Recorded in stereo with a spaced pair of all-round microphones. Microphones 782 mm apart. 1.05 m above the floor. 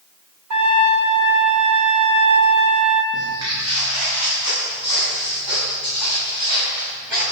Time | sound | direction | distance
0.5 | a trumpet | 55° right (ahead or behind) | 1.8 m
3.1 | footsteps | 15° right (ahead or behind) | 7.5 m